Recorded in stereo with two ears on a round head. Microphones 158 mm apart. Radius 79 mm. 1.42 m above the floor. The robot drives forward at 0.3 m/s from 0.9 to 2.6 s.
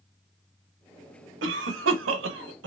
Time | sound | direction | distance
1.4 | a cough | 75° right (ahead or behind) | 1.0 m